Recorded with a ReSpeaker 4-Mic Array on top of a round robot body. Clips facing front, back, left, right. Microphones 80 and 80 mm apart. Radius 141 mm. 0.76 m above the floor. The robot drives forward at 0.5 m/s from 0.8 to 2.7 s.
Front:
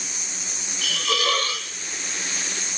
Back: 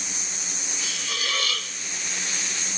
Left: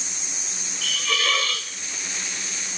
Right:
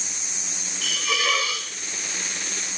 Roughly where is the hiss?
Ahead.